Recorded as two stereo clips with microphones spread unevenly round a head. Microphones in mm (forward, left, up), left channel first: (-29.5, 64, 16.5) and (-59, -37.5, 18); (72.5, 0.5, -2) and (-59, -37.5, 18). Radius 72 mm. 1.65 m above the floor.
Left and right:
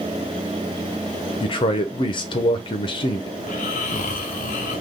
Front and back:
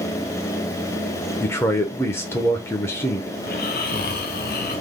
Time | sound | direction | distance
1.4 | a man speaking | 95° left | 0.7 m
3.4 | snoring | 50° left | 0.7 m